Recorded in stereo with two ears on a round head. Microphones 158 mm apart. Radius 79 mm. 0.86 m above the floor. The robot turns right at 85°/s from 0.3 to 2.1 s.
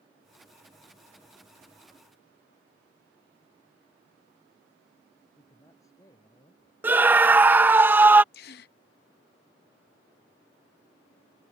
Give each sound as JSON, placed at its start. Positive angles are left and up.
{"t": 5.4, "sound": "a man speaking", "side_deg": 20}
{"t": 6.8, "sound": "a scream", "side_deg": -10}
{"t": 8.3, "sound": "a gasp", "side_deg": 60}